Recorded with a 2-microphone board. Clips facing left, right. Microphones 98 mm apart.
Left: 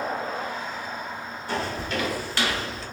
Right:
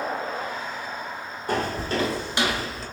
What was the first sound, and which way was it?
Footsteps, 50° right (ahead or behind).